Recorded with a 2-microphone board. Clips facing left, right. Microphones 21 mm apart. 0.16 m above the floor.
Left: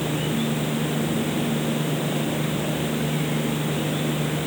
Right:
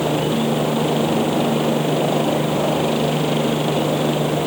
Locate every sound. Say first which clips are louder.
0.0 s a helicopter: right 6 dB; 45° right (ahead or behind)